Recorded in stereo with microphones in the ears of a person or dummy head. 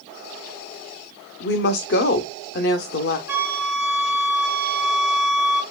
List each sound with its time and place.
1.4 s a woman speaking: 60° left (ahead or behind), 0.7 m
3.3 s a flute: 10° right (ahead or behind), 1.4 m